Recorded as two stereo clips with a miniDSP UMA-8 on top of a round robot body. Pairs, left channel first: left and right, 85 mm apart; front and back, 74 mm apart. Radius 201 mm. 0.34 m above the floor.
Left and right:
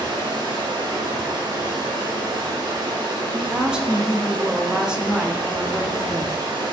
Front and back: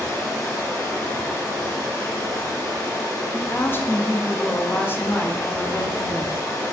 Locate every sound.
0.0 s running water: 55° right, 1.4 m
3.3 s a woman speaking: 15° right, 0.9 m